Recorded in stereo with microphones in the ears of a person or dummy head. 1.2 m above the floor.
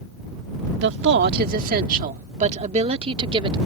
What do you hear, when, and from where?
0.8 s a woman speaking: 65° right (ahead or behind); by 3.6 s 30° right (ahead or behind)